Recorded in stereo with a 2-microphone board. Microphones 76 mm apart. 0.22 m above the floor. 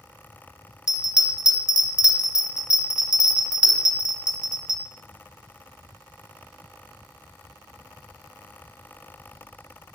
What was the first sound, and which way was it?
A bell, 10° right (ahead or behind).